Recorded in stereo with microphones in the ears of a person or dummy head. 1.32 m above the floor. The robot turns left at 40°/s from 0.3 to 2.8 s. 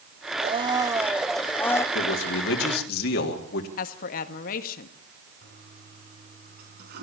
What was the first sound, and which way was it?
A blender, 145° right.